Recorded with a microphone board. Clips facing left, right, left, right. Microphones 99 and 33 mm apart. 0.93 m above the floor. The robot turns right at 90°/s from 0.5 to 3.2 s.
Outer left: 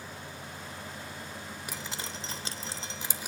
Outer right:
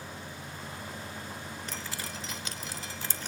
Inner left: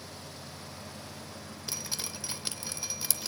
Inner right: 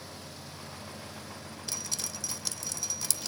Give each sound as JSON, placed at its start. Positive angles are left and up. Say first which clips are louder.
{"t": 1.7, "sound": "dripping", "louder": "even, even", "side_deg": 10, "distance_m": 0.7}